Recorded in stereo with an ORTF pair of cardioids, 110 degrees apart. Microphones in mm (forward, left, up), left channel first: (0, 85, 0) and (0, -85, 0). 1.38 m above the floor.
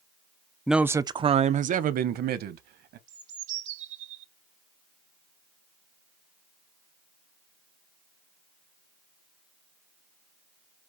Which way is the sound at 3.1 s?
45° right.